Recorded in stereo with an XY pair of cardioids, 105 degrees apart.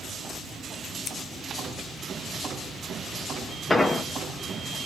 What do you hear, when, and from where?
1.1 s scissors: 65° left, 0.5 m
3.7 s an explosion: 15° left, 0.7 m